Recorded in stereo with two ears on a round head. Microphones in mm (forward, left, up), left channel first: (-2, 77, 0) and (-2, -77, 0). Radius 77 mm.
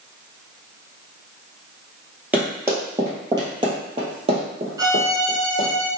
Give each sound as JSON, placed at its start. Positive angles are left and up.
{"t": 2.3, "sound": "running footsteps", "side_deg": -10, "distance_m": 1.9}
{"t": 4.8, "sound": "a violin", "side_deg": -20, "distance_m": 1.0}